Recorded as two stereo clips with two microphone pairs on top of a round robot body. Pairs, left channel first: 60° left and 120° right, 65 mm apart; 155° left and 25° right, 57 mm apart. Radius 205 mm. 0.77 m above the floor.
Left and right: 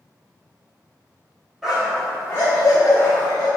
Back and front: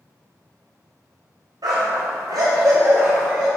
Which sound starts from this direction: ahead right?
A dog barking, at 1.6 s.